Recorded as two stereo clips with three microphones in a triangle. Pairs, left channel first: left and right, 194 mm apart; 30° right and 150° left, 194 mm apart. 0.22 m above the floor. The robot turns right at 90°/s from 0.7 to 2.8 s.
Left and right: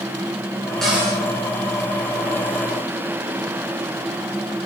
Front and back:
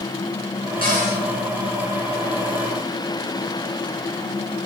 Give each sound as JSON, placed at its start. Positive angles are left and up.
{"t": 0.8, "sound": "a cupboard door", "azimuth_deg": 175, "distance_m": 2.0}